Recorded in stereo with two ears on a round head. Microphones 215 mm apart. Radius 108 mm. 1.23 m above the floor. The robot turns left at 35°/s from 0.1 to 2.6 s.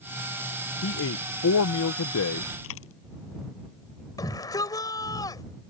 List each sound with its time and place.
0.8 s a man speaking: 125° left; by 2.5 s 65° left
2.6 s a dropped coin: 60° left (ahead or behind)
4.2 s a shout: 15° left (ahead or behind)